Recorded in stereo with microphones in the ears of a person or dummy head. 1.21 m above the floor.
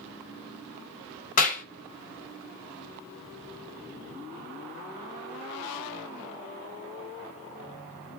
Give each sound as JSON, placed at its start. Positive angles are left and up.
{"t": 1.4, "sound": "a clap", "side_deg": 45, "distance_m": 1.0}